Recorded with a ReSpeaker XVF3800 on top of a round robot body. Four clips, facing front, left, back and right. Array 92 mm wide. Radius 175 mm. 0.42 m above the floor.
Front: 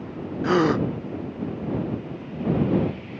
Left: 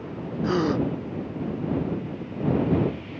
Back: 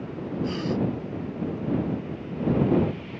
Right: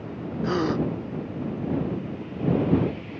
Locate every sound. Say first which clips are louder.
0.4 s a gasp: left 1 dB, front 9 dB; straight ahead